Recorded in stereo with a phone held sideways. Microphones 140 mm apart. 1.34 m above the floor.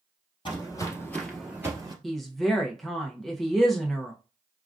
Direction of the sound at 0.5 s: 35° left (ahead or behind).